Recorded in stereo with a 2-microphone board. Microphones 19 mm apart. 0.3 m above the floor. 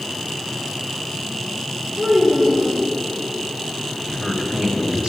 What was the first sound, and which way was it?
A child speaking, 45° right (ahead or behind).